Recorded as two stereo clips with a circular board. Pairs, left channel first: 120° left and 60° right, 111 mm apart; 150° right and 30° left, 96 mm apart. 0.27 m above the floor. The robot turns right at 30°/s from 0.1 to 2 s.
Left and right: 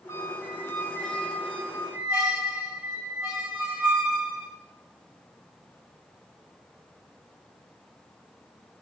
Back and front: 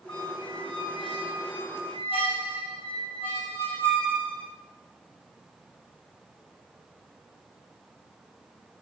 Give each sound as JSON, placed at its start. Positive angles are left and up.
{"t": 0.1, "sound": "a squeak", "azimuth_deg": 175, "distance_m": 2.5}